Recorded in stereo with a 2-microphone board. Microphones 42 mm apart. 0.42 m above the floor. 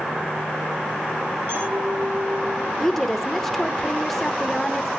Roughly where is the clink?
Right.